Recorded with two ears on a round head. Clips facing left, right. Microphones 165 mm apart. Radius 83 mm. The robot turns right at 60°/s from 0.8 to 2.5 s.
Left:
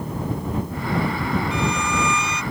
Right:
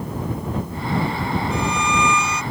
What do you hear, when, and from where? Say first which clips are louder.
1.5 s a violin: right 1 dB; 140° right; by 2.4 s 90° right